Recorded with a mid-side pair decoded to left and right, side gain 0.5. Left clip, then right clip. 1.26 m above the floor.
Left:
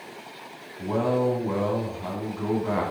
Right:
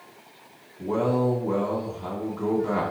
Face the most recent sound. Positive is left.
turn(degrees=5)